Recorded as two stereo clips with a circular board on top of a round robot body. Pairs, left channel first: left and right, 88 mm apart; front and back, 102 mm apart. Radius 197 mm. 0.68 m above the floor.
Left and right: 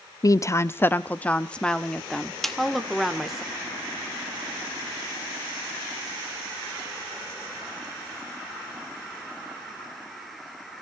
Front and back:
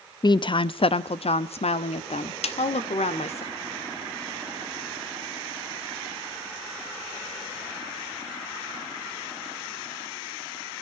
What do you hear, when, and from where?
0.2 s a woman speaking: 45° left, 0.9 m; by 3.4 s straight ahead, 2.5 m
2.4 s a snare drum: 5° left, 2 m